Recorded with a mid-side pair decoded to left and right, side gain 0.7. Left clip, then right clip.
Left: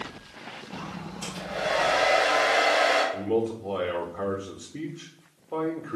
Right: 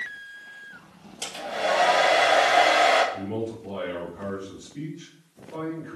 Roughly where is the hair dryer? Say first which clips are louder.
Right 3 dB; ahead right.